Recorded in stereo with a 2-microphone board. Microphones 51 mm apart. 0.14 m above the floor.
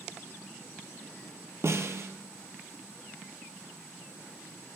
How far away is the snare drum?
About 0.9 m.